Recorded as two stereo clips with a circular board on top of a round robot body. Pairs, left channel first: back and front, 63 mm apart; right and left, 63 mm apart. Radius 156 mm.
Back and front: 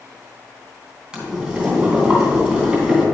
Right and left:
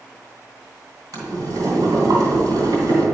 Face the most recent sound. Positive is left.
turn(degrees=80)